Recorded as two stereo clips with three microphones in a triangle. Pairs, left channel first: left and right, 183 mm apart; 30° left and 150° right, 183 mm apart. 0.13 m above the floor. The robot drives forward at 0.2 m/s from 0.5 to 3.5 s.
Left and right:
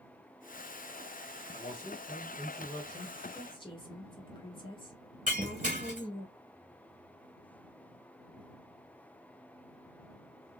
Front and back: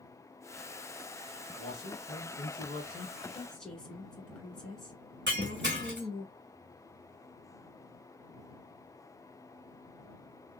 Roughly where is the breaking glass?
Behind right.